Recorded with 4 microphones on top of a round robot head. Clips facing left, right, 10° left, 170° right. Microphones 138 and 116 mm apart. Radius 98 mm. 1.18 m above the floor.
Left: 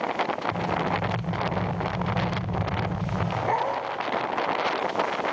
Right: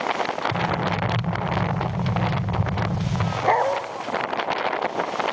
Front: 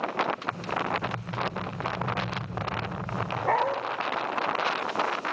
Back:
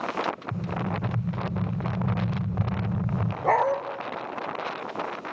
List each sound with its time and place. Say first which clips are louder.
0.5 s an explosion: right 2 dB, front 1 dB; 125° right, 0.9 m
3.4 s a dog barking: right 7 dB, back 4 dB; 110° right, 0.9 m